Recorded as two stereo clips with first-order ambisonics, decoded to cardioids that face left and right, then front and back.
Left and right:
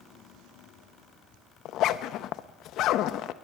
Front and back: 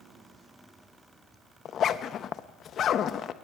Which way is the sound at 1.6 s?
55° left.